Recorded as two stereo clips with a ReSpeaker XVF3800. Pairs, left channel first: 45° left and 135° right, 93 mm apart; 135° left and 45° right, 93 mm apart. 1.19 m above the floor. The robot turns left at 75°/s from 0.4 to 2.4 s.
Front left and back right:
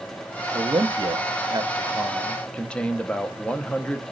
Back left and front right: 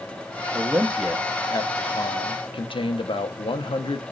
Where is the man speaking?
100° right, 0.6 m; by 4.0 s 120° left, 0.6 m.